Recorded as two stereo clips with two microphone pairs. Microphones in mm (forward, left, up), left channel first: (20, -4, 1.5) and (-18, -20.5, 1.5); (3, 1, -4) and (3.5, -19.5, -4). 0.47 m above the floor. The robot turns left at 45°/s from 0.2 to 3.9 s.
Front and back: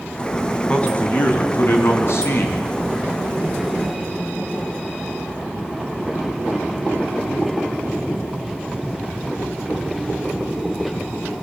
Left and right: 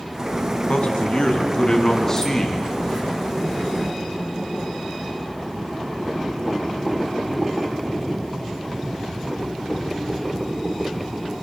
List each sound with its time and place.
0.7 s a man speaking: 85° left, 5 m; by 2.7 s straight ahead, 5 m